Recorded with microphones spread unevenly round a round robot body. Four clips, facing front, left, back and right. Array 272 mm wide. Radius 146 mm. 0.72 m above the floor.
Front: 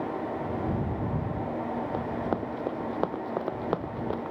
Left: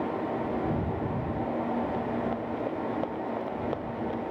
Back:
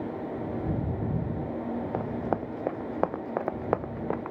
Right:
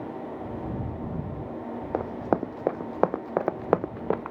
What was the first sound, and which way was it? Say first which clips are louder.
Running footsteps: right 3 dB, back 1 dB; 80° right.